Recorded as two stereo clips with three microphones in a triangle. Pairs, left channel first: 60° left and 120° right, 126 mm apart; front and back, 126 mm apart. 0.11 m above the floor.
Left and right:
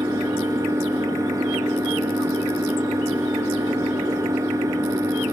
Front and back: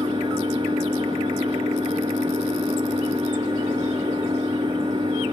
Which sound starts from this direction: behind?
An engine running, at 0.0 s.